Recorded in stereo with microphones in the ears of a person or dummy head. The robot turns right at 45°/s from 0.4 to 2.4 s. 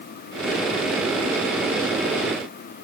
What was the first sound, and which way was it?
Only background noise.